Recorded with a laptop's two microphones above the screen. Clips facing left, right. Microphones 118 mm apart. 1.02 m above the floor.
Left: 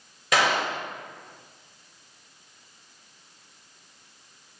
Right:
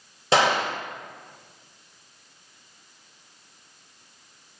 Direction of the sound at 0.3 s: 30° right (ahead or behind).